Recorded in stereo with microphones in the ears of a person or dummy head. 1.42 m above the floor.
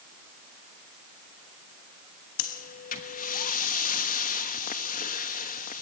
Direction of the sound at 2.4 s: 40° left (ahead or behind).